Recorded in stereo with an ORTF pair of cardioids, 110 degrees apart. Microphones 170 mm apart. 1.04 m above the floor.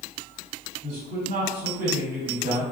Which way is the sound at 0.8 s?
50° right.